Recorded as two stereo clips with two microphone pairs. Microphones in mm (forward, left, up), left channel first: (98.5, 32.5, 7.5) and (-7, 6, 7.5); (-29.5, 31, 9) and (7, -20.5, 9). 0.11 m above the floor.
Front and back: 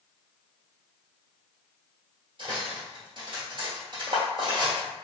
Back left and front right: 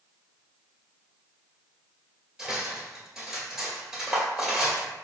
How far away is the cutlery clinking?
About 1.1 m.